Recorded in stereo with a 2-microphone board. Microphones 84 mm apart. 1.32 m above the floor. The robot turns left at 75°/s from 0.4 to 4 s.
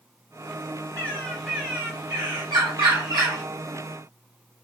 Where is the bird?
40° left, 1.6 m; by 3.4 s 145° right, 1.6 m.